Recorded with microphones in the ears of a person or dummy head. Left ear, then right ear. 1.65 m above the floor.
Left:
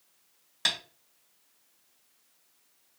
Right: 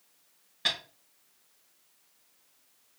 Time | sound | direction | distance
0.7 | tapping | 40° left (ahead or behind) | 1.8 m